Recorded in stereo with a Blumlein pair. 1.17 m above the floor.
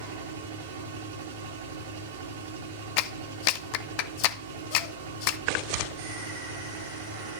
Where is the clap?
45° left, 0.6 m.